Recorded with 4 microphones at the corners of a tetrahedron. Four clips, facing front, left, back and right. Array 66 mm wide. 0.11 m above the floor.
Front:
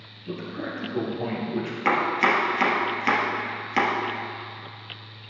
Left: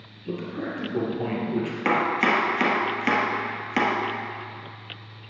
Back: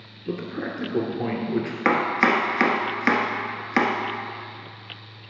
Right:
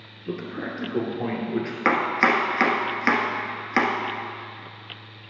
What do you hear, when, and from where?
0.3 s a man speaking: 145° right, 1.7 m
1.9 s chopping: 140° right, 1.3 m